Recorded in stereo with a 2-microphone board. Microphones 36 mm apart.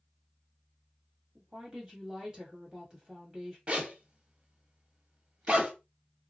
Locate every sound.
1.4 s a woman speaking: 20° right (ahead or behind), 1.5 m
3.7 s a zipper: 35° right (ahead or behind), 0.8 m